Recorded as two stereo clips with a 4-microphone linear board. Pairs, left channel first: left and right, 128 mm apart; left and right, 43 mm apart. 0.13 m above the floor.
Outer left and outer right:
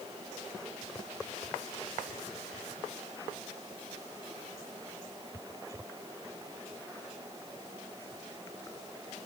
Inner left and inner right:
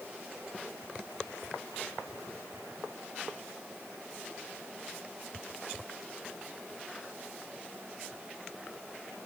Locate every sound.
Only background noise.